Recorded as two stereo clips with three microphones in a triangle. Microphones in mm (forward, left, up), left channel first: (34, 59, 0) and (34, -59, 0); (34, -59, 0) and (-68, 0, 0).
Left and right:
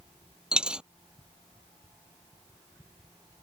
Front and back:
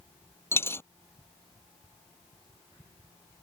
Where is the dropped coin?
20° right.